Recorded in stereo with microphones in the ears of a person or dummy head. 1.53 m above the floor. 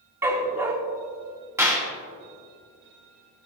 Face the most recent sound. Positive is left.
turn(degrees=-15)  # may be behind; listen again after turning